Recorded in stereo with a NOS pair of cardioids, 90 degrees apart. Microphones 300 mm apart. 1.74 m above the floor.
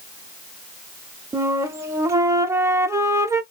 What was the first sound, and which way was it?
A flute, 10° right.